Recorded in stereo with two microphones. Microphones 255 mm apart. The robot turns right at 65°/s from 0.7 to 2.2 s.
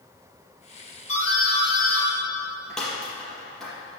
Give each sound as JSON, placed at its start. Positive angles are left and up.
{"t": 1.1, "sound": "a doorbell", "side_deg": 65, "distance_m": 4.5}